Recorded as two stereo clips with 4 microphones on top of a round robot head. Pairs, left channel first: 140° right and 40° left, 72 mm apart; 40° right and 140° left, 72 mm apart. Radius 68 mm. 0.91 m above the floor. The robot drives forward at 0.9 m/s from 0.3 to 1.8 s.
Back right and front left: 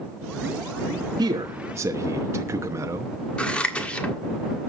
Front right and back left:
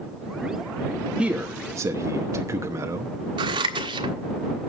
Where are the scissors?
145° left, 1.4 m.